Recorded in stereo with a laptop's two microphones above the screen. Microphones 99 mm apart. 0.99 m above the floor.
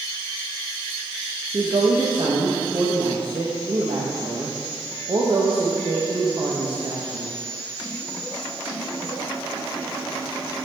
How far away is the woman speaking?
About 0.7 m.